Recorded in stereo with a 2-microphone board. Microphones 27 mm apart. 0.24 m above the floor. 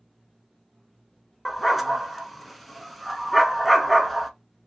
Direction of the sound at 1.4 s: Centre (ahead or behind).